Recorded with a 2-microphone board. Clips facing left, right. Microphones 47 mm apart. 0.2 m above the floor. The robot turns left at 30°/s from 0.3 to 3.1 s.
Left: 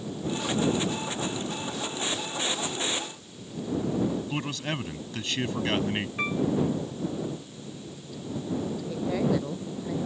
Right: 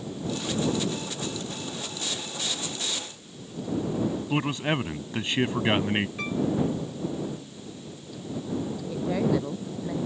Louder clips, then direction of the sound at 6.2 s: Left 1 dB; 25° left (ahead or behind).